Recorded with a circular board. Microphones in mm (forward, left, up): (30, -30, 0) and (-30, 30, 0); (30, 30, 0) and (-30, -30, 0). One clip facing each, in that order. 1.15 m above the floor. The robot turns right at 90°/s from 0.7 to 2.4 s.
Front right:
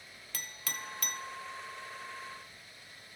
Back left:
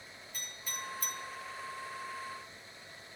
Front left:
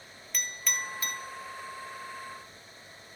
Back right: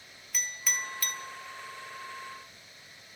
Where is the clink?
50° right, 0.5 m; by 1.2 s 5° right, 0.5 m.